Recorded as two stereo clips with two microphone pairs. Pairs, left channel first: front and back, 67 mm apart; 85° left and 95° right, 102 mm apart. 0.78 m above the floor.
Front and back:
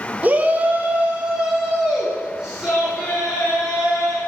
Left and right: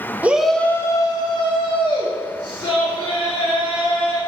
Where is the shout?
155° right, 0.6 m; by 4.2 s 100° left, 3 m.